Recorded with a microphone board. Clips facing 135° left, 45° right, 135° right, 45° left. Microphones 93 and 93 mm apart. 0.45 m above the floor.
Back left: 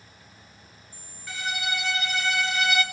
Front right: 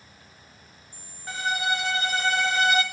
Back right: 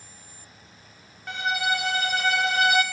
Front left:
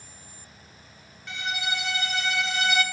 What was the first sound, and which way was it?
A violin, 95° right.